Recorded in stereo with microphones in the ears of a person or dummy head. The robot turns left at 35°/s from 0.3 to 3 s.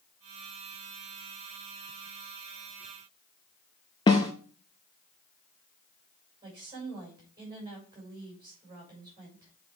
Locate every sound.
4.1 s a snare drum: 20° left (ahead or behind), 0.7 m
6.4 s a woman speaking: 20° right (ahead or behind), 6 m